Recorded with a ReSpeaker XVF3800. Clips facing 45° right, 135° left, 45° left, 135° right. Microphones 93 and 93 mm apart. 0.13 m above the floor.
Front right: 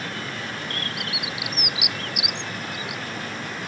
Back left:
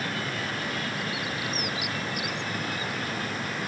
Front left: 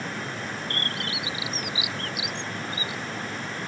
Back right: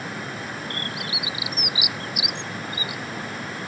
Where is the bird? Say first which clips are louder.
Even, even; 60° right.